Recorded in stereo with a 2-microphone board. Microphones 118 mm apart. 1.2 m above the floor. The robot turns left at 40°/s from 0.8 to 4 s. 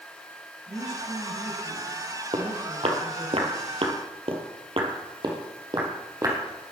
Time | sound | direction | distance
0.7 | a woman speaking | 170° right | 6.5 m
2.3 | footsteps | 50° right (ahead or behind) | 2.5 m